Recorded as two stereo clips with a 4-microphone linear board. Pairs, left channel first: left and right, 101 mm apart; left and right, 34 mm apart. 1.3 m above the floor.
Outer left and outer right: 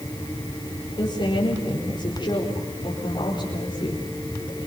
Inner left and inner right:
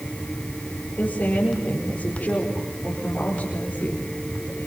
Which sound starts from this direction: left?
A woman speaking, at 1.0 s.